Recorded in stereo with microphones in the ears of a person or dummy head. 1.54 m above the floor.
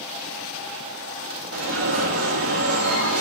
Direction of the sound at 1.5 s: 80° right.